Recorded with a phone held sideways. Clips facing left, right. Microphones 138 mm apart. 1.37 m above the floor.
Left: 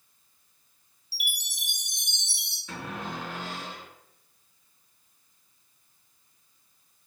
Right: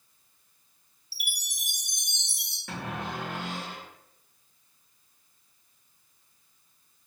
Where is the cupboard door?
70° right (ahead or behind), 1.2 m.